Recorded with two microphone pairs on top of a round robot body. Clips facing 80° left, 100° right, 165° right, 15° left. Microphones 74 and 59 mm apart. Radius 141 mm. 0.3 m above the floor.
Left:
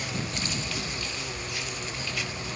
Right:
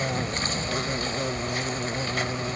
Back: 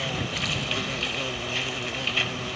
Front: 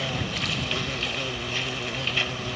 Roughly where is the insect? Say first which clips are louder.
Right 5 dB, even; right.